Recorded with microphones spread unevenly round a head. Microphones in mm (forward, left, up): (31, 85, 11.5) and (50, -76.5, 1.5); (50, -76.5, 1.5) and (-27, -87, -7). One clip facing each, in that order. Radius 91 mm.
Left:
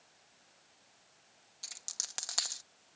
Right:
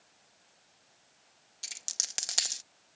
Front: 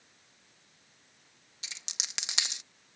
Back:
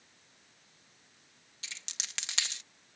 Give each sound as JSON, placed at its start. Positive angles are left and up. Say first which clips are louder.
{"t": 1.6, "sound": "a dropped coin", "louder": "right 2 dB, even", "azimuth_deg": -35}